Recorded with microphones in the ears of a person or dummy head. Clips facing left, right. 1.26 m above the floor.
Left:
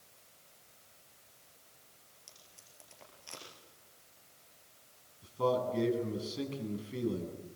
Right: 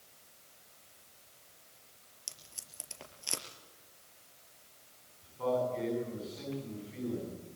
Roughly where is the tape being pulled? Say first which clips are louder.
Right 4 dB; right.